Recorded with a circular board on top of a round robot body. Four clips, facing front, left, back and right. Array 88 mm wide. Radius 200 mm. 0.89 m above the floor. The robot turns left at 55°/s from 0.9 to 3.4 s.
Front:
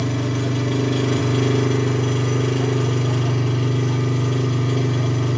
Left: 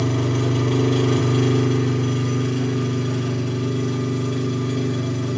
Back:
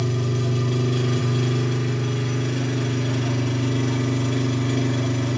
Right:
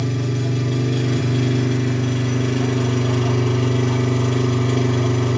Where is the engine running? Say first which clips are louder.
Left 2 dB, front 2 dB; 65° left, 1.2 m; by 5.4 s 70° right, 1.2 m.